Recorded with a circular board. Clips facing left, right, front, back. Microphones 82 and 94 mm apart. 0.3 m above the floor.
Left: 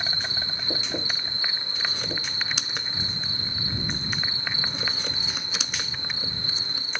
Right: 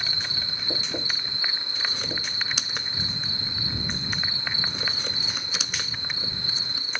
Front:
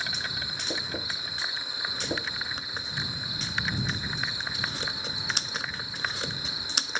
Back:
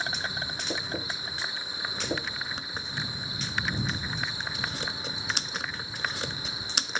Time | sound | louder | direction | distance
0.0 | an insect | left 2 dB, back 2 dB | 135° left | ?